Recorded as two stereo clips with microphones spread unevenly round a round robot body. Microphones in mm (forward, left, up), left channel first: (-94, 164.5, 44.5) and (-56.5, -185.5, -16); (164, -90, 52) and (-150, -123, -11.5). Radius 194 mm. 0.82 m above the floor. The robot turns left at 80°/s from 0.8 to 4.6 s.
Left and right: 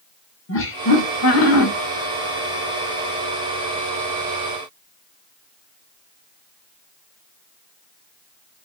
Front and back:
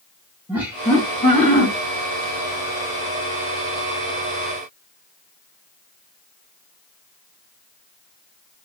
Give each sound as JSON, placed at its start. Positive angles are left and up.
{"t": 0.5, "sound": "laughter", "azimuth_deg": 130, "distance_m": 1.0}